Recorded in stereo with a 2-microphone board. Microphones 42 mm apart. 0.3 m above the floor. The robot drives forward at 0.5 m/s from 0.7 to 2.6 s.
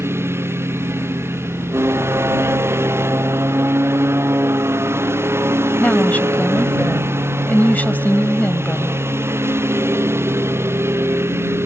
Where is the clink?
No clink in this recording.